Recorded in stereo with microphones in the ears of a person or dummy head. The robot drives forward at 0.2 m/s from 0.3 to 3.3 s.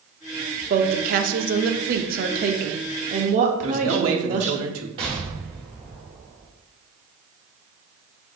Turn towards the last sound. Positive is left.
turn(degrees=-30)  # may be behind; listen again after turning